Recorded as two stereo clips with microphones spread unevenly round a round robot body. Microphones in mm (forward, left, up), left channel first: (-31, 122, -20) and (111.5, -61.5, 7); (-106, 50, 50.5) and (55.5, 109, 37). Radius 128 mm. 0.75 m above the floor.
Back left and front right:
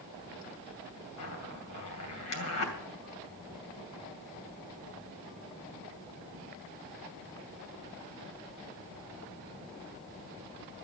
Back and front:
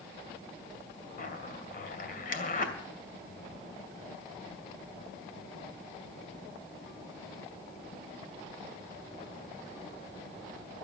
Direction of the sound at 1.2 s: 160° left.